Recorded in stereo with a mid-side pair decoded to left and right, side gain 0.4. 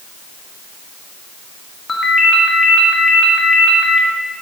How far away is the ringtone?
About 2 m.